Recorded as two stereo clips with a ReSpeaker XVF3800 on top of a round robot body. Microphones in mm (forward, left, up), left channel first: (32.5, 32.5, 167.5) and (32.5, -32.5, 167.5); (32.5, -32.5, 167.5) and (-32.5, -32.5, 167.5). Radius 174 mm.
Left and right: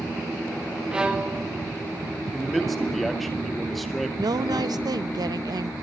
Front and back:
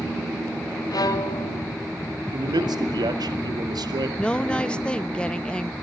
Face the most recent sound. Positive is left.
turn(degrees=-75)